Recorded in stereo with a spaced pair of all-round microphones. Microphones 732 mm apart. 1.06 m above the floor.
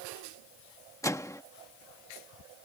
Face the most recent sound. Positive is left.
turn(degrees=5)  # may be behind; listen again after turning